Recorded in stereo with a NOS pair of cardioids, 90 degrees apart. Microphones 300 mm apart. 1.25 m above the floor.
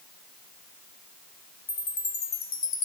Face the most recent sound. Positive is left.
turn(degrees=65)